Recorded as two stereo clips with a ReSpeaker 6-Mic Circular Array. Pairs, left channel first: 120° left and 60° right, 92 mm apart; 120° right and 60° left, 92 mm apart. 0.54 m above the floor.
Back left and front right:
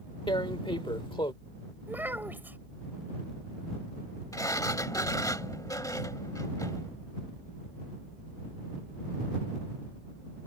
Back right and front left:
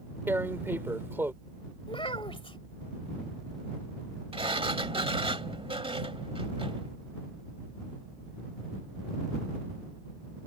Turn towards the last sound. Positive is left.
turn(degrees=70)